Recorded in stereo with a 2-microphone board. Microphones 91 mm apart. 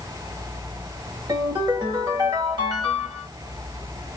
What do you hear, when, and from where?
1.3 s a ringtone: 55° right (ahead or behind), 1.8 m